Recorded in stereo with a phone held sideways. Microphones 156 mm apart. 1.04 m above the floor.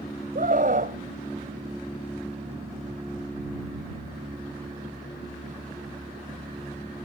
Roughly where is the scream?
Right.